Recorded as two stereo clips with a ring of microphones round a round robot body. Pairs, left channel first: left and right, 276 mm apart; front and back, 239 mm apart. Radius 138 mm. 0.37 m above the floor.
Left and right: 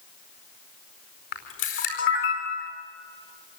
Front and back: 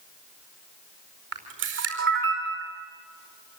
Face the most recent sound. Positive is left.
turn(degrees=140)